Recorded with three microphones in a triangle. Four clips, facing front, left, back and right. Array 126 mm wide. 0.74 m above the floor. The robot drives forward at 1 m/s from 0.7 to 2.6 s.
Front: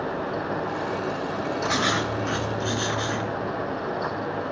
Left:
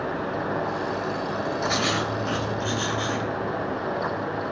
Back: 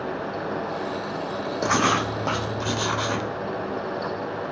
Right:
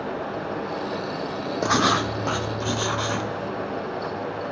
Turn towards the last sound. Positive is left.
turn(degrees=-150)